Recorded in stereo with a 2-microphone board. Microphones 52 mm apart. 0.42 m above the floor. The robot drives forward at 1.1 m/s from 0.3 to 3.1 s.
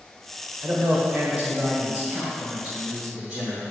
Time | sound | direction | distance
0.6 | a man speaking | 35° right (ahead or behind) | 1.7 m